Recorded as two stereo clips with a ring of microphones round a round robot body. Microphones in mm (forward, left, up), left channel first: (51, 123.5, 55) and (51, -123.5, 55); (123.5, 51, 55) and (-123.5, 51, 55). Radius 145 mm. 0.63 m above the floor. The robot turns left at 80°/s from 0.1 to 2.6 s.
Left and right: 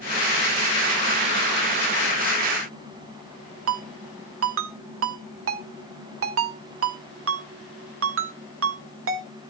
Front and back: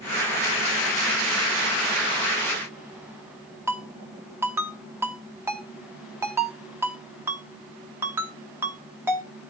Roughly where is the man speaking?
I don't hear a man speaking.